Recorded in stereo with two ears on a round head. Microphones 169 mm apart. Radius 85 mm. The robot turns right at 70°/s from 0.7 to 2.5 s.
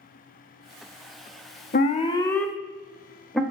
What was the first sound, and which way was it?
An alarm, 45° left (ahead or behind).